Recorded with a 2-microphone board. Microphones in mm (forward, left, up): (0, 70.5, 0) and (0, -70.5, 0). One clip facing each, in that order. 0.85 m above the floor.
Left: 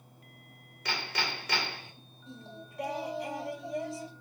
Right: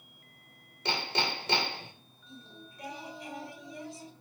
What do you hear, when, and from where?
0.8 s hammering: 30° right (ahead or behind), 3 m
2.3 s singing: 85° left, 2.5 m